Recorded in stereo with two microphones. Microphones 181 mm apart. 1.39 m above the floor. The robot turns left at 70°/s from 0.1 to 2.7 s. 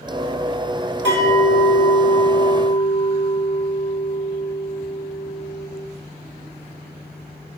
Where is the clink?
150° left, 1.3 m; by 5.7 s 35° left, 1.3 m.